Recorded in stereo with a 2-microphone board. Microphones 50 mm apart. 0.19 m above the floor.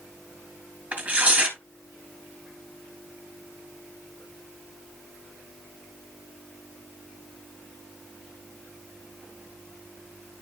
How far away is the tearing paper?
About 2.5 m.